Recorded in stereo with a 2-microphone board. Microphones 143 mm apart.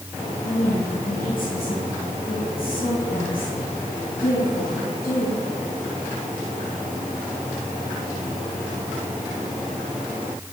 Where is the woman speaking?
70° left (ahead or behind), 3 m; by 5.4 s 80° left, 6.5 m.